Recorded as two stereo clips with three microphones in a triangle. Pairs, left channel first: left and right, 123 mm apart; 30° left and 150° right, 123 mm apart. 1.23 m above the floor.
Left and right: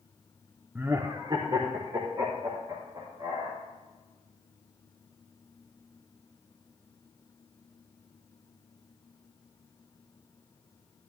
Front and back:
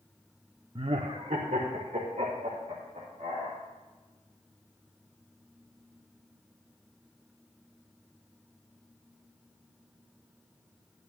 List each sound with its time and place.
0.8 s laughter: 160° right, 0.6 m; by 3.6 s 135° right, 3.5 m